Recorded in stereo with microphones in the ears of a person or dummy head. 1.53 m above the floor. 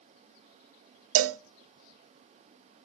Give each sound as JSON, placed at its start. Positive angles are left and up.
{"t": 1.1, "sound": "a cowbell", "side_deg": -75, "distance_m": 0.5}